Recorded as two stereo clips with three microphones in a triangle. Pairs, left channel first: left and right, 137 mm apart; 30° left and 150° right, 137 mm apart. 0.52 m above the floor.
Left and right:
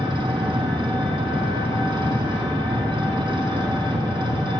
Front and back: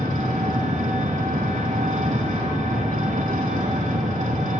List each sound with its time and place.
0.0 s an engine running: 145° right, 3.5 m